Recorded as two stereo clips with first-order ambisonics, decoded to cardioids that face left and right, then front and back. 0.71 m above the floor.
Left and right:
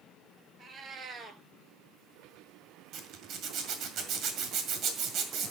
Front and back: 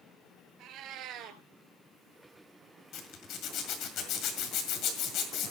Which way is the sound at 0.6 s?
150° right.